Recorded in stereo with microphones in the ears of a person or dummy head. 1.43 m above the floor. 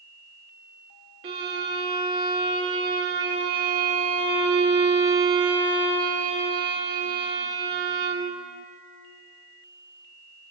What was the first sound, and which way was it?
A violin, 20° right (ahead or behind).